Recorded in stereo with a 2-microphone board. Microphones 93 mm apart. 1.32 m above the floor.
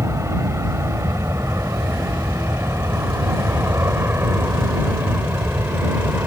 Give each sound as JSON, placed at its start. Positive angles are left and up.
{"t": 0.0, "sound": "an aircraft", "side_deg": -30}